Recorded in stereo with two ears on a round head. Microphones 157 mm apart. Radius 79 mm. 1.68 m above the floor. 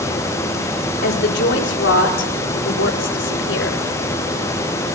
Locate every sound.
1.0 s a woman speaking: 65° left (ahead or behind), 3.5 m; by 3.8 s 70° left (ahead or behind), 5.5 m